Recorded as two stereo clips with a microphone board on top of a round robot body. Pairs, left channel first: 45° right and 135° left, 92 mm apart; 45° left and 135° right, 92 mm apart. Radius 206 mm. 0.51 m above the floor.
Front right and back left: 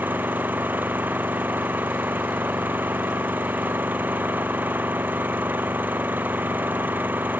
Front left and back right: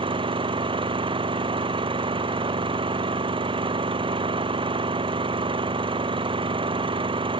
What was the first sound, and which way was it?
An engine running, 155° right.